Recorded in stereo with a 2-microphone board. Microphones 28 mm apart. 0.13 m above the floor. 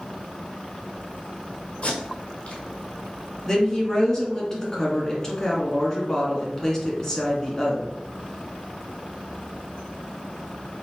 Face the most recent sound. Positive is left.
turn(degrees=25)  # may be behind; listen again after turning